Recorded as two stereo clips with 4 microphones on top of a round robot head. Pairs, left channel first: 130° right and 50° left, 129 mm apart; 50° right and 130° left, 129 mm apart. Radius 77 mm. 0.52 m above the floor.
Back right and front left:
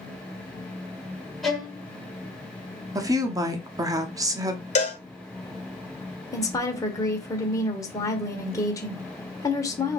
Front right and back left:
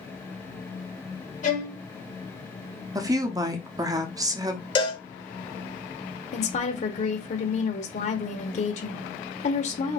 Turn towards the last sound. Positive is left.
turn(degrees=-70)